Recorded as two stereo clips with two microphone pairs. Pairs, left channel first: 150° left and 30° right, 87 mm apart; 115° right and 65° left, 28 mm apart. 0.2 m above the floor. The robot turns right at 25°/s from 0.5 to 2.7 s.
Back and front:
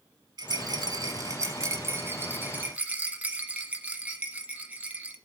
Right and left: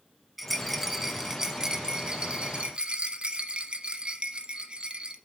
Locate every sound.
0.4 s a rattle: 20° right, 1.1 m; by 5.2 s 35° left, 1.1 m